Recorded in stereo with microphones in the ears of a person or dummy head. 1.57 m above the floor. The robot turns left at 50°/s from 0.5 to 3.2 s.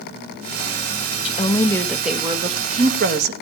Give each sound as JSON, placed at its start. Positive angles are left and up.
{"t": 1.2, "sound": "a woman speaking", "azimuth_deg": 35, "distance_m": 1.6}